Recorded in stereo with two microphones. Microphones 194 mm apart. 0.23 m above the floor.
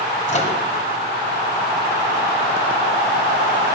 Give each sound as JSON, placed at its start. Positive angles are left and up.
{"t": 0.3, "sound": "a microwave", "side_deg": 40, "distance_m": 1.5}